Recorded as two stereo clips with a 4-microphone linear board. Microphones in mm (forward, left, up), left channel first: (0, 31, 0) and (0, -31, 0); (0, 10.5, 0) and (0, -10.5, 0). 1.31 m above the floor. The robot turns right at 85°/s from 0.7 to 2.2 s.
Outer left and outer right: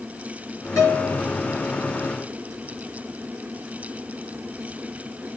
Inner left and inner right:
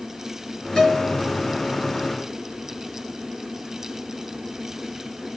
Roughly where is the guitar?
Ahead left.